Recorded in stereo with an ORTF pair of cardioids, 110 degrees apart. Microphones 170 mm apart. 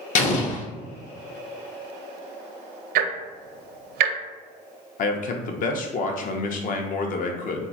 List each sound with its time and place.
0.1 s an explosion: 45° left, 0.7 m
3.0 s ticking: 70° right, 0.5 m
5.0 s a man speaking: 55° left, 0.6 m